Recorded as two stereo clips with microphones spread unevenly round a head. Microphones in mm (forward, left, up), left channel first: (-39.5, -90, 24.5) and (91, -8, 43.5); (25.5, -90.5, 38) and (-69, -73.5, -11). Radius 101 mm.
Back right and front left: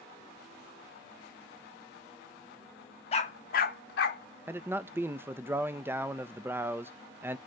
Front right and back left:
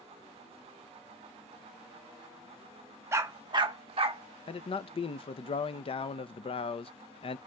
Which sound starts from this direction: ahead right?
A man speaking, at 4.5 s.